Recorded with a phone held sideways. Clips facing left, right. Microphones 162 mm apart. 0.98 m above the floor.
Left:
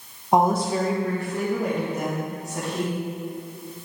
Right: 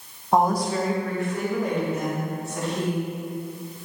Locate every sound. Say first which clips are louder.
0.3 s a woman speaking: left 1 dB; 15° left (ahead or behind), 0.6 m; by 3.0 s 40° left (ahead or behind), 2.5 m